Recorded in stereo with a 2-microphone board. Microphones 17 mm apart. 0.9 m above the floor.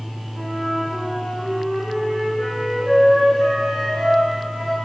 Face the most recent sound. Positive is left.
turn(degrees=-70)  # may be behind; listen again after turning